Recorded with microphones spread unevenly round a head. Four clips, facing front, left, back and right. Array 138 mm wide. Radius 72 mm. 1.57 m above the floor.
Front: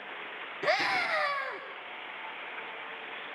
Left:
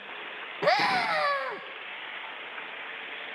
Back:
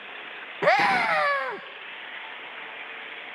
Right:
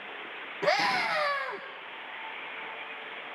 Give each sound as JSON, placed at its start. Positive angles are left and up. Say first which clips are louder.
{"t": 0.6, "sound": "a scream", "louder": "left 2 dB, back 9 dB", "azimuth_deg": 165, "distance_m": 1.2}